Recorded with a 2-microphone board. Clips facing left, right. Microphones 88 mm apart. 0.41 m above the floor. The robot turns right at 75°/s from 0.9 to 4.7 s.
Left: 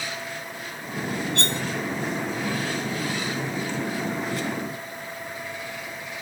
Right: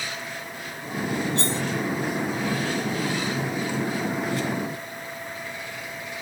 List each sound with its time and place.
1.4 s cutlery clinking: 75° left (ahead or behind); by 1.6 s 55° left (ahead or behind)